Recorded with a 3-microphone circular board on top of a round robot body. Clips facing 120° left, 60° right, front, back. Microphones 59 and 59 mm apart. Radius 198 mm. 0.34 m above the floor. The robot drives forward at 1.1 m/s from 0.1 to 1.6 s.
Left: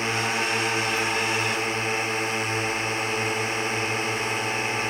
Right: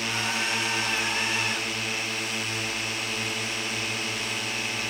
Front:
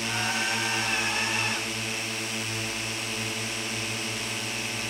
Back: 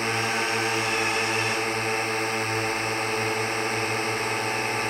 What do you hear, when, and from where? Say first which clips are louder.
0.0 s a drone: left 3 dB, back 3 dB; 165° left